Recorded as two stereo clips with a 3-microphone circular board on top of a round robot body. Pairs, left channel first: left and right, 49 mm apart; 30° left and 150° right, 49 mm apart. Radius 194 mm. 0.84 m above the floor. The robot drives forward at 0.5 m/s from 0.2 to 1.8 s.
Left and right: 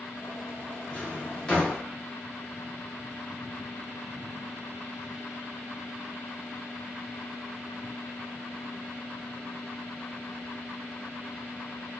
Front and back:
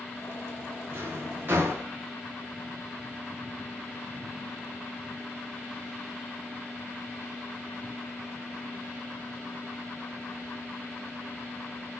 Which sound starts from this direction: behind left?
A drawer, at 0.9 s.